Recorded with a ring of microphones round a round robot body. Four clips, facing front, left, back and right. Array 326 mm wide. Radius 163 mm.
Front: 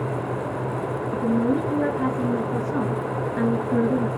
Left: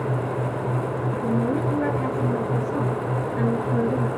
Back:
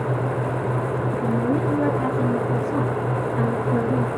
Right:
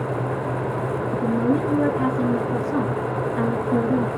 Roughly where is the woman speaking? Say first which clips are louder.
Right 3 dB, front 2 dB; ahead right.